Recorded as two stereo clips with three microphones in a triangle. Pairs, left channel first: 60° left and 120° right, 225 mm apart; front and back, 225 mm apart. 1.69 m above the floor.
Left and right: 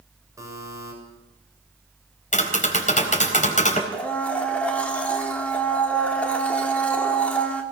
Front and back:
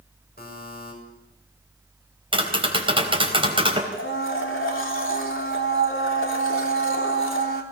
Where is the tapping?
115° left, 4 m.